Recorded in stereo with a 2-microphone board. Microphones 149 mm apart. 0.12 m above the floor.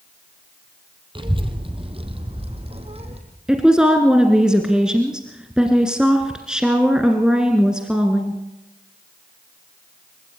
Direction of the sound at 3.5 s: 5° right (ahead or behind).